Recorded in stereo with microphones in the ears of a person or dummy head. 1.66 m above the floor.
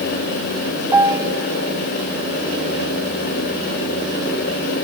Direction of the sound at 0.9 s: 10° right (ahead or behind).